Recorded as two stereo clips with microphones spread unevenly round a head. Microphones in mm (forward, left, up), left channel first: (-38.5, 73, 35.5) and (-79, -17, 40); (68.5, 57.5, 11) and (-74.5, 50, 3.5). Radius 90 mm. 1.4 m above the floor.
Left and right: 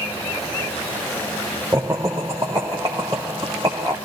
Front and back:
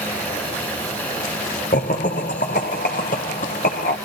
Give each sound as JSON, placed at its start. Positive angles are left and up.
{"t": 1.7, "sound": "laughter", "azimuth_deg": -40, "distance_m": 0.7}